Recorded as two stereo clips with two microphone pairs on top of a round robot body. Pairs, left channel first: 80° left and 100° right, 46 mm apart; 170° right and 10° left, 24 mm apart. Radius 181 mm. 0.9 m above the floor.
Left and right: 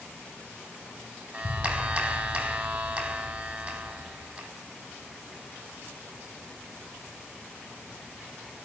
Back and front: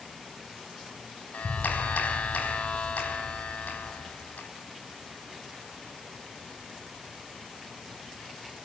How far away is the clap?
About 4 m.